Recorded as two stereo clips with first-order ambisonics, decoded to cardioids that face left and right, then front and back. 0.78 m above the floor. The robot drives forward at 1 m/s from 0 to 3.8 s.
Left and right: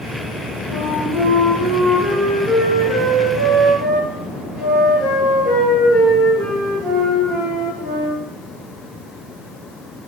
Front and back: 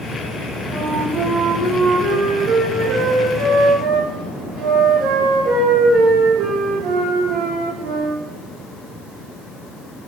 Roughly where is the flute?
Behind left.